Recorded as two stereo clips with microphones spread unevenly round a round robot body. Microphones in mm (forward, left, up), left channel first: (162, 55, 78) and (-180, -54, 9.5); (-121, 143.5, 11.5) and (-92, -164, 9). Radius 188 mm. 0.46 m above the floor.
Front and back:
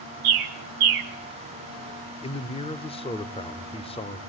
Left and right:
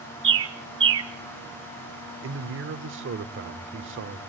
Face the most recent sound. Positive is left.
turn(degrees=-60)